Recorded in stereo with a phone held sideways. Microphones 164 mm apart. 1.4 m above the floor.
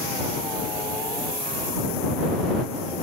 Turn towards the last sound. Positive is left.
No sound to turn to.